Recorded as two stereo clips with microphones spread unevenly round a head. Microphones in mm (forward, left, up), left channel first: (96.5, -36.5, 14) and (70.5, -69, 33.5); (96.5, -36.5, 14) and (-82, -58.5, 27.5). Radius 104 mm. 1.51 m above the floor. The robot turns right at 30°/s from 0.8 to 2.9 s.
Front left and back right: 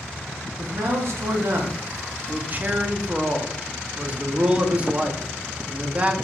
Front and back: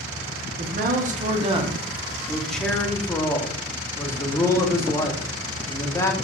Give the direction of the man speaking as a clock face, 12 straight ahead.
4 o'clock.